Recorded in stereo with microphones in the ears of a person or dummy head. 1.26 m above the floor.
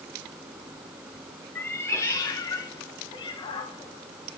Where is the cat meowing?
10° left (ahead or behind), 1.3 m; by 4.4 s 30° left (ahead or behind), 2.5 m.